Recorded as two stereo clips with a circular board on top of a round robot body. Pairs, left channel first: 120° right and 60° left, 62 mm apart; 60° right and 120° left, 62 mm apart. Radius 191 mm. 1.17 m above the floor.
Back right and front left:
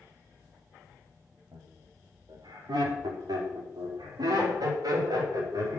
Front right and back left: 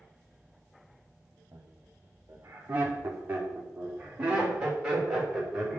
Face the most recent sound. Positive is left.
turn(degrees=35)